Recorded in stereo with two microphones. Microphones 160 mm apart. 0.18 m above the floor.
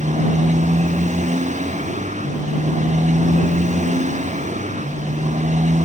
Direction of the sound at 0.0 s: 45° right (ahead or behind).